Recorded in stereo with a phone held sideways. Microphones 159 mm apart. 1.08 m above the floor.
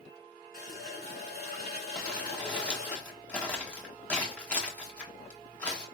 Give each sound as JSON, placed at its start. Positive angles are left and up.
{"t": 0.5, "sound": "a running tap", "side_deg": 85, "distance_m": 2.0}
{"t": 1.9, "sound": "crumpling", "side_deg": 5, "distance_m": 1.2}